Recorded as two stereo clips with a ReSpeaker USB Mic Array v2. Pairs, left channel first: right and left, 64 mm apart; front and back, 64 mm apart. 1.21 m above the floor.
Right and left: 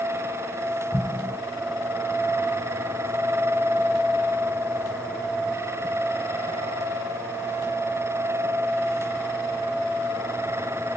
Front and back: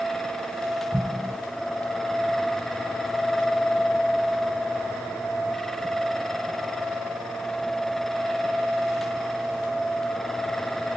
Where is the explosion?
95° right, 0.7 m.